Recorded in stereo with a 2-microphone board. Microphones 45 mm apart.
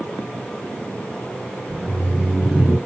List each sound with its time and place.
1.7 s laughter: 20° right (ahead or behind), 1.9 m; by 2.8 s 5° right (ahead or behind), 1.5 m